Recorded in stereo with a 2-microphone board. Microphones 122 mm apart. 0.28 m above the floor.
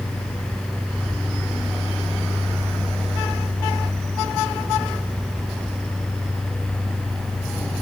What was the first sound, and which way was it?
Only background noise.